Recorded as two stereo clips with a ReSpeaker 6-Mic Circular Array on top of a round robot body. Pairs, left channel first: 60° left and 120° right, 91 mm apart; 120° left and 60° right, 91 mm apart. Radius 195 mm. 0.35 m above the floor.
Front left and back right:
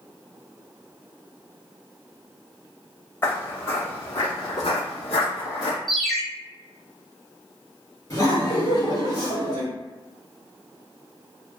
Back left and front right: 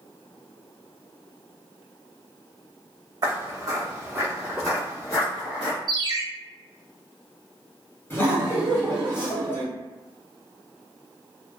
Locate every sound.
3.2 s footsteps: 10° right, 1.3 m; by 5.8 s 110° left, 0.6 m
5.9 s a ringtone: 30° right, 0.8 m
8.1 s laughter: 75° left, 1.6 m